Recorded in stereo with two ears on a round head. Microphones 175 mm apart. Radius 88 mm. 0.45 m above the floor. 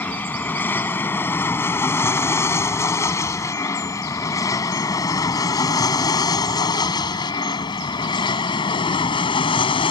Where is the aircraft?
10° left (ahead or behind); by 9.9 s 30° left (ahead or behind).